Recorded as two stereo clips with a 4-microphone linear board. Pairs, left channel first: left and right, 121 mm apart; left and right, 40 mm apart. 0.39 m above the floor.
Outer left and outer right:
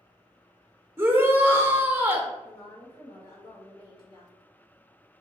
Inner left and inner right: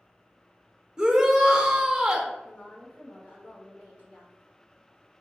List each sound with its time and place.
1.0 s a shout: 20° right (ahead or behind), 0.8 m
2.4 s a woman speaking: 45° left (ahead or behind), 1.7 m